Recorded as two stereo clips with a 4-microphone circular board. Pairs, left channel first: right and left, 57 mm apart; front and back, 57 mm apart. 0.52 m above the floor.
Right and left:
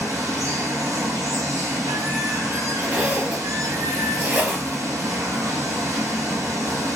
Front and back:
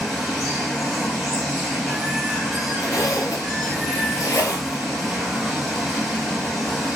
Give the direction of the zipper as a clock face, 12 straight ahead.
11 o'clock.